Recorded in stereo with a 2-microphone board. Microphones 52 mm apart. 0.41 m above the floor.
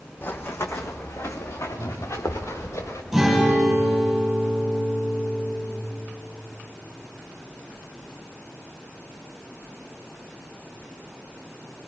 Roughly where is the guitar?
Centre.